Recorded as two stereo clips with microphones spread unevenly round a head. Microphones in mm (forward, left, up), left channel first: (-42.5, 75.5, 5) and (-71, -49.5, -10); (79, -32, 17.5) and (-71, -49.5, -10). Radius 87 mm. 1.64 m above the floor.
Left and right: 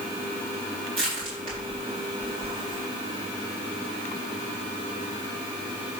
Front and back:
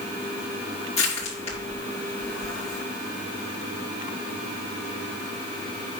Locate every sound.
1.0 s crushing: 40° right, 4 m